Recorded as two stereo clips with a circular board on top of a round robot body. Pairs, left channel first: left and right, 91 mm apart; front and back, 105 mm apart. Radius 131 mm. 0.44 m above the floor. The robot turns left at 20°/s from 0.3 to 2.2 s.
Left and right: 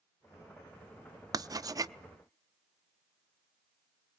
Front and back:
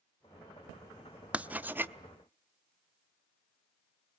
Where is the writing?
105° right, 0.9 m; by 1.9 s 120° right, 0.9 m.